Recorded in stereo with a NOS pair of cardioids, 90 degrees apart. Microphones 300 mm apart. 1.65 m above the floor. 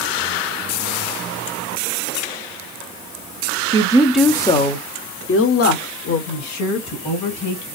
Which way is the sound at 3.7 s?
20° right.